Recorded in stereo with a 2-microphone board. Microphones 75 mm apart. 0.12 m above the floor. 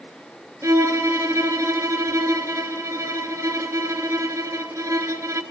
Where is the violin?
40° right (ahead or behind), 0.5 m.